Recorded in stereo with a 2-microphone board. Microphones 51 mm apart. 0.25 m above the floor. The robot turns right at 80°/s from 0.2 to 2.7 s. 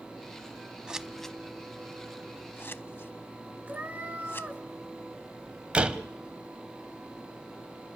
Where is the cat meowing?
30° right (ahead or behind), 1.2 m.